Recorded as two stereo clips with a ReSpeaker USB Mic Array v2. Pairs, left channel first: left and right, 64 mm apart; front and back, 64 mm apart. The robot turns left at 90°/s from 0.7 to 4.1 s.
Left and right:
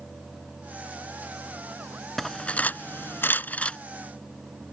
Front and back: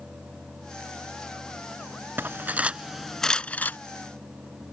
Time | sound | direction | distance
2.2 | cutlery clinking | 170° left | ?